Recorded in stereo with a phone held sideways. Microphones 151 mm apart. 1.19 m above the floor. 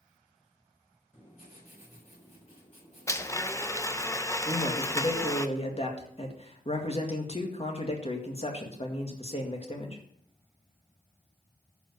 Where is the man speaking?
40° left (ahead or behind), 1.9 m.